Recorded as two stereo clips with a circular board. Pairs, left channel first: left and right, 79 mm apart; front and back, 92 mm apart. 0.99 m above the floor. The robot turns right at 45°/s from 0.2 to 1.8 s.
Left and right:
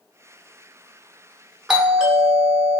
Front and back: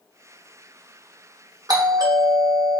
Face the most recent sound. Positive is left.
turn(degrees=-170)